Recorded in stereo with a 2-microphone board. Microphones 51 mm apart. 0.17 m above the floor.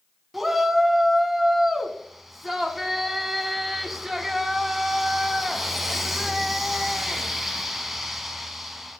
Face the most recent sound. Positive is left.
turn(degrees=0)  # may be behind; listen again after turning